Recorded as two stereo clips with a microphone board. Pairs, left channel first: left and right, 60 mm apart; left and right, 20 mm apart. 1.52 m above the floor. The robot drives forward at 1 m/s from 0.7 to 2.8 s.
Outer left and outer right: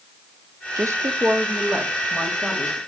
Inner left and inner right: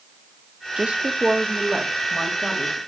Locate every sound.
0.8 s a woman speaking: 70° right (ahead or behind), 0.6 m; by 2.8 s 15° right (ahead or behind), 2.5 m